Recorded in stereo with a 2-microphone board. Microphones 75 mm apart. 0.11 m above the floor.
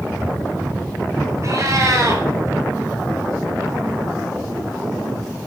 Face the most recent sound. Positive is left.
turn(degrees=-45)  # may be behind; listen again after turning